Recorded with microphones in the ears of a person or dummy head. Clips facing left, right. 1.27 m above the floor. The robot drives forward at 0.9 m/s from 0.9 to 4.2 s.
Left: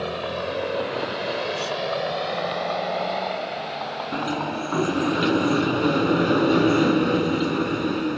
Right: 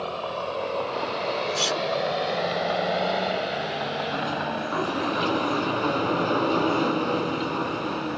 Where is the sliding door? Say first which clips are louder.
Left 2 dB; 25° left (ahead or behind).